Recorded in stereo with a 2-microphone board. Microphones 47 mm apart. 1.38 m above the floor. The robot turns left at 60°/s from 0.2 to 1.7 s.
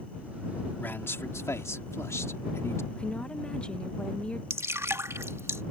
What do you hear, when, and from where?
0.8 s a man speaking: 140° left; by 2.8 s 85° left
2.9 s a woman speaking: 20° left (ahead or behind)
4.5 s dripping: 80° right